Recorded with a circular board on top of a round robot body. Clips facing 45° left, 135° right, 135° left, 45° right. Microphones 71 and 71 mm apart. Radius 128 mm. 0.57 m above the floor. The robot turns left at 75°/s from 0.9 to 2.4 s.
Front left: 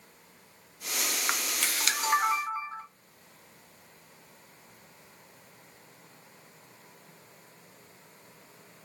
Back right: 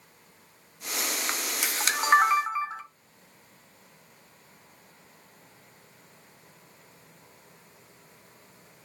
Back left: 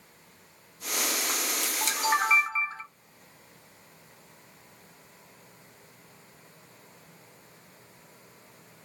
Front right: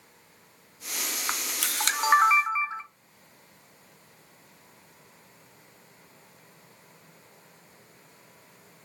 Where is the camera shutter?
30° right, 0.7 m; by 2.8 s 115° right, 0.7 m.